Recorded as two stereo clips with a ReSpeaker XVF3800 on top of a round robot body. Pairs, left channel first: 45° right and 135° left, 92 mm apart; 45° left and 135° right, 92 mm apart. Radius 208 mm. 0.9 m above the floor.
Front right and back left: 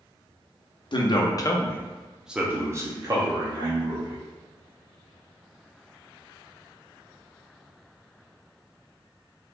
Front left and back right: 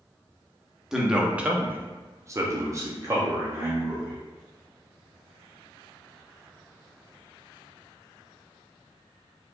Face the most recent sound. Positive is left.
turn(degrees=160)